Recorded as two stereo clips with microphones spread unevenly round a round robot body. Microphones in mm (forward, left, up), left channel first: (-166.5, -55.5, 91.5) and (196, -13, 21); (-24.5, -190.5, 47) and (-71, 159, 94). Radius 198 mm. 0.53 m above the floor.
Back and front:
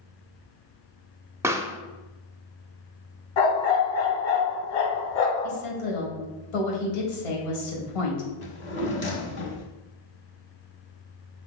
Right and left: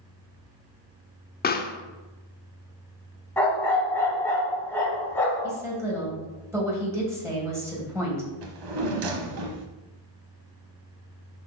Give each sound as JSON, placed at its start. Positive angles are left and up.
{"t": 1.4, "sound": "a pop", "azimuth_deg": -55, "distance_m": 0.7}
{"t": 3.4, "sound": "a dog barking", "azimuth_deg": -170, "distance_m": 1.9}
{"t": 5.4, "sound": "a woman speaking", "azimuth_deg": -175, "distance_m": 3.0}
{"t": 8.4, "sound": "a drawer", "azimuth_deg": 125, "distance_m": 1.0}